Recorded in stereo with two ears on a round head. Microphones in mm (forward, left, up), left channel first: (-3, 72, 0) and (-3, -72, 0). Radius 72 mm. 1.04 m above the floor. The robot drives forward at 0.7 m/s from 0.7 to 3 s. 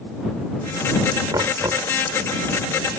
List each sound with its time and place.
1.3 s knocking: 20° right (ahead or behind)